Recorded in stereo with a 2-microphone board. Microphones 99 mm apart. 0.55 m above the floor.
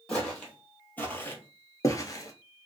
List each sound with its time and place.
0.1 s footsteps: 10° left (ahead or behind), 1.3 m; by 2.7 s 40° left (ahead or behind), 0.6 m